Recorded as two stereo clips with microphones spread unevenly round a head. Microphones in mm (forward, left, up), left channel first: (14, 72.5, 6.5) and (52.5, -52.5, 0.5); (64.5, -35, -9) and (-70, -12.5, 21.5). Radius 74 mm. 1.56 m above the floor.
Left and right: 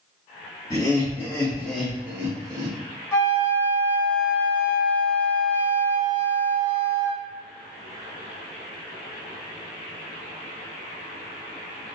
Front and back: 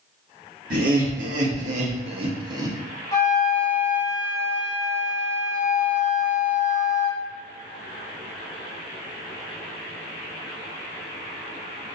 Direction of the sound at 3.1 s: 60° left.